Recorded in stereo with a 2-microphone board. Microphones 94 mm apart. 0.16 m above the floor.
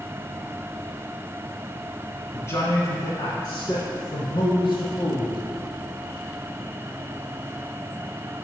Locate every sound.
2.3 s a man speaking: 25° left (ahead or behind), 1.4 m; by 5.4 s 55° left (ahead or behind), 3.5 m